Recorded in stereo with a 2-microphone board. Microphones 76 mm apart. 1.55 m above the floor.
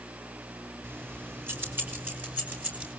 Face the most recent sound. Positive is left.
turn(degrees=-20)  # may be behind; listen again after turning